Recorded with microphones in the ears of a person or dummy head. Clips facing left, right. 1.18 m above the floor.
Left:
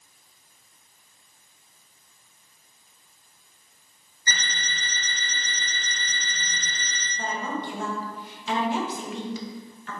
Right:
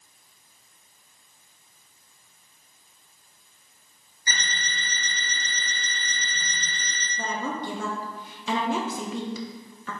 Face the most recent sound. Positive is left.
turn(degrees=-65)  # may be behind; listen again after turning